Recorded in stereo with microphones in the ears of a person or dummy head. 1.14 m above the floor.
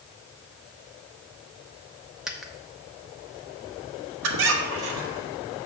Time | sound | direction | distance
2.3 | a dropped coin | 5° right (ahead or behind) | 0.6 m
4.2 | a squeak | 75° right (ahead or behind) | 1.1 m